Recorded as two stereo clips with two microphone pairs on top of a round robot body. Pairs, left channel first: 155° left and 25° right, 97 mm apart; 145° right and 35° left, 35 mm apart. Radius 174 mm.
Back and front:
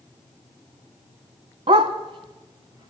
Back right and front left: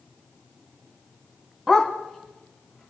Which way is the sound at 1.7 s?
55° right.